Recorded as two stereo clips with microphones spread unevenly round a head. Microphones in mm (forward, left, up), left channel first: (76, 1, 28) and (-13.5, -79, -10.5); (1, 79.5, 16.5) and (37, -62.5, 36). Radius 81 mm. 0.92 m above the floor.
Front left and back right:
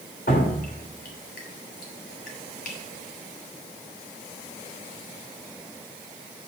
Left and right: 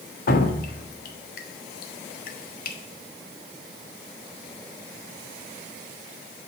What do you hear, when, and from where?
0.3 s dripping: 90° left, 1.3 m